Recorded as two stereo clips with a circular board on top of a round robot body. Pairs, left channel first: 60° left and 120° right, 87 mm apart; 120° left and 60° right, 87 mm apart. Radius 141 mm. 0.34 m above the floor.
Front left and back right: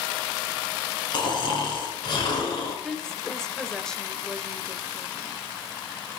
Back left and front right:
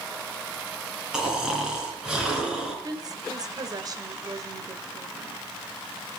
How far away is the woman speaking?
About 2 m.